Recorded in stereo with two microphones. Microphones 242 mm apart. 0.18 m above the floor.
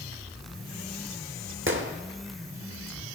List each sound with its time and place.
1.7 s a gunshot: 60° right (ahead or behind), 1.2 m